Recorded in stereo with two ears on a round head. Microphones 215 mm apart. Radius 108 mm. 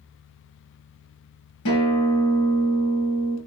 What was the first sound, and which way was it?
A guitar, 70° left (ahead or behind).